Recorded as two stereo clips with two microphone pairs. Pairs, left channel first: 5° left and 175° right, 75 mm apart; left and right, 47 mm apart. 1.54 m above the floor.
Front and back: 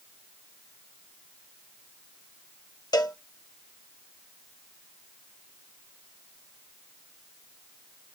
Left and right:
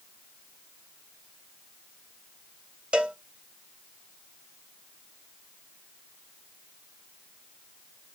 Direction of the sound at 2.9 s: 20° right.